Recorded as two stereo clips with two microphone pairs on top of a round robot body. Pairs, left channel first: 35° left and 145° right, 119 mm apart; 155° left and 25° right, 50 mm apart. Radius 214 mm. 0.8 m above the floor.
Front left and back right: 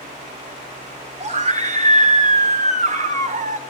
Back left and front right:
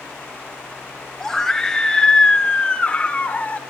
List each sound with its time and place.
1.2 s a scream: 125° right, 4 m; by 3.6 s 145° right, 4.5 m